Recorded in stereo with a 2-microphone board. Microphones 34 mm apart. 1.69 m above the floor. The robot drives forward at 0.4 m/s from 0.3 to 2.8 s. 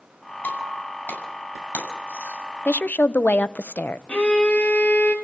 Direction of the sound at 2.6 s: 60° left (ahead or behind).